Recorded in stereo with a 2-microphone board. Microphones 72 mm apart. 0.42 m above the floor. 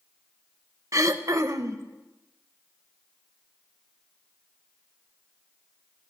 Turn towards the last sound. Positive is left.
turn(degrees=-50)  # may be behind; listen again after turning